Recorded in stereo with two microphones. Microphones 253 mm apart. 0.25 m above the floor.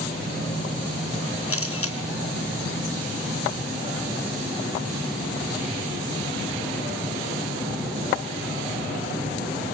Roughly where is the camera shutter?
Left.